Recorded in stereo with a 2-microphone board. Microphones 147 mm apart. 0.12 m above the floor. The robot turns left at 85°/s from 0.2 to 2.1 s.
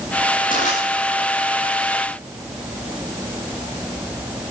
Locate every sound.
0.5 s crushing: 65° left (ahead or behind), 9.5 m; by 0.8 s 45° left (ahead or behind), 9.5 m